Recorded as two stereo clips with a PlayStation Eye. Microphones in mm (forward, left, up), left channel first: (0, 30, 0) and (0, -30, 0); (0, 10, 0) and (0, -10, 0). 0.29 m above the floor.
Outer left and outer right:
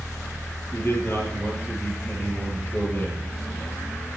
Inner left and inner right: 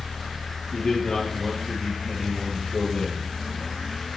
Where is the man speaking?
35° left (ahead or behind), 6 m.